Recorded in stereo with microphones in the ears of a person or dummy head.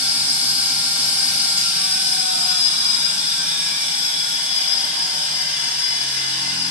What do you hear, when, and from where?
0.0 s a machine running: 10° right (ahead or behind), 3.5 m